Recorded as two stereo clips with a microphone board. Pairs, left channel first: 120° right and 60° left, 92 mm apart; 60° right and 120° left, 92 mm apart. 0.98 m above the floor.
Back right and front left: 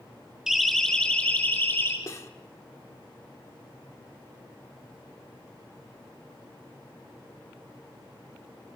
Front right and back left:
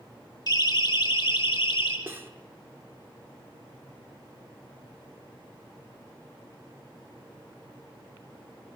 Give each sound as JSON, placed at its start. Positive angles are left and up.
{"t": 0.5, "sound": "a siren", "azimuth_deg": -25, "distance_m": 2.5}
{"t": 2.1, "sound": "cutlery clinking", "azimuth_deg": -175, "distance_m": 1.6}